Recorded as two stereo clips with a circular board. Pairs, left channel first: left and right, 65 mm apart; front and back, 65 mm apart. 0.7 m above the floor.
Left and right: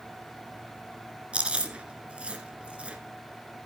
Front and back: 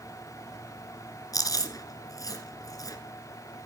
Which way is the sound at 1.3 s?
20° right.